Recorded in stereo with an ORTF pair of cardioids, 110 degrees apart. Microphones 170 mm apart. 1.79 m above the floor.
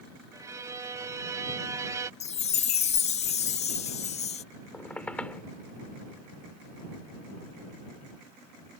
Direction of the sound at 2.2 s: 45° left.